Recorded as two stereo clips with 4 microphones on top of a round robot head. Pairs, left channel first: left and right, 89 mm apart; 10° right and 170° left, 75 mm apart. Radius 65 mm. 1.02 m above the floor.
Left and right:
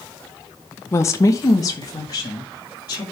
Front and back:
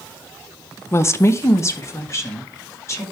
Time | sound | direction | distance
0.9 | a woman speaking | 35° left | 0.6 m